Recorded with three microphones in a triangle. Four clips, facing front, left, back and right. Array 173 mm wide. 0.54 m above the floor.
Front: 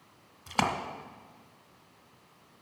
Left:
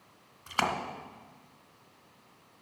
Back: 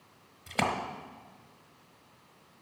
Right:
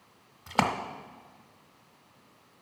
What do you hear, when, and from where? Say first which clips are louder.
0.5 s a splash: right 4 dB, front 1 dB; 80° right, 0.9 m